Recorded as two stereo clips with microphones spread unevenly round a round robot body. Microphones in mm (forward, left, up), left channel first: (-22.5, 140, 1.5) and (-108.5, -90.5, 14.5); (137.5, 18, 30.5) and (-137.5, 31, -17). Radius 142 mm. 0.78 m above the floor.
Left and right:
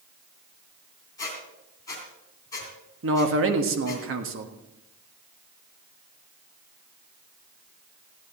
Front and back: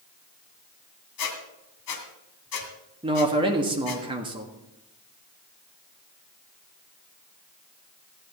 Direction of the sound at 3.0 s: 120° right.